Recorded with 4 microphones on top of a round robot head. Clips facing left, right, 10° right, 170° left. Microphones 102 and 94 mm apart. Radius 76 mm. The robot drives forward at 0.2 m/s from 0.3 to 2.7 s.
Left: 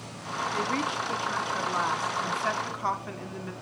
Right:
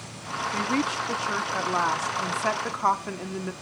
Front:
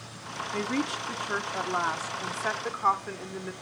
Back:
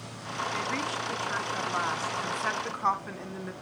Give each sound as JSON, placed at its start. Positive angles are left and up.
{"t": 0.5, "sound": "a woman speaking", "azimuth_deg": -55, "distance_m": 1.0}